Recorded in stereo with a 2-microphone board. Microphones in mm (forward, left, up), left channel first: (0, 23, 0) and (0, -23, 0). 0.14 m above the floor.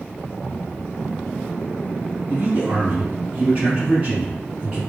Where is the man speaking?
35° right (ahead or behind), 2.0 m; by 4.8 s 25° right (ahead or behind), 1.7 m.